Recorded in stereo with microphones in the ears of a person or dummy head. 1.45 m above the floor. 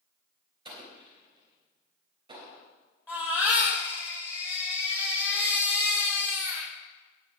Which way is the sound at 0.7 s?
30° right (ahead or behind).